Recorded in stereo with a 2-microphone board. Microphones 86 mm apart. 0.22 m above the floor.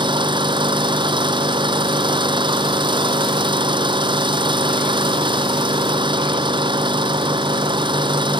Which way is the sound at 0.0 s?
65° right (ahead or behind).